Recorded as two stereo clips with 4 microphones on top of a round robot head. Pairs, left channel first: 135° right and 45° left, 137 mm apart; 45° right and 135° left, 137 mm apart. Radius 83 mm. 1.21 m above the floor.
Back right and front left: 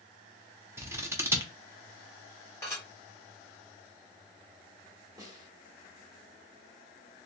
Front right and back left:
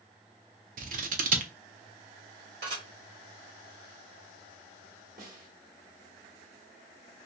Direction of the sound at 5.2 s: 110° left.